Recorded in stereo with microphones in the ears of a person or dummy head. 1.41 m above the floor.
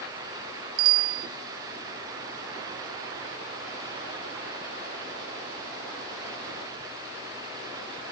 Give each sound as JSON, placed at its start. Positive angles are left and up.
{"t": 0.8, "sound": "a bicycle bell", "side_deg": -85}